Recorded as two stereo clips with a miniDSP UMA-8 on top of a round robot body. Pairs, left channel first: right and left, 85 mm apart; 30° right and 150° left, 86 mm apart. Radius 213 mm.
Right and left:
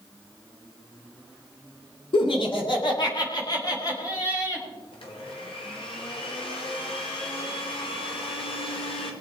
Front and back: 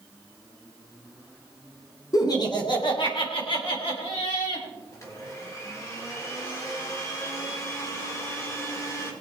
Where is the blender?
85° right, 2.5 m.